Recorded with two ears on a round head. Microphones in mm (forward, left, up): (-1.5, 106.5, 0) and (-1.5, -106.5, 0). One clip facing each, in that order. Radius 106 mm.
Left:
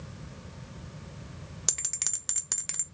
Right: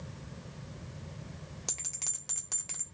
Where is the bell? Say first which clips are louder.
Left 2 dB; 25° left (ahead or behind), 0.6 m.